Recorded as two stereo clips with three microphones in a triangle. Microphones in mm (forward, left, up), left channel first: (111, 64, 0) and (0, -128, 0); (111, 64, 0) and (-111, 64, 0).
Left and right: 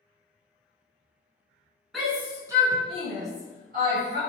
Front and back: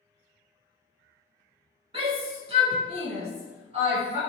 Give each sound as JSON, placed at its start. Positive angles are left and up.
{"t": 1.9, "sound": "a shout", "azimuth_deg": 150, "distance_m": 1.2}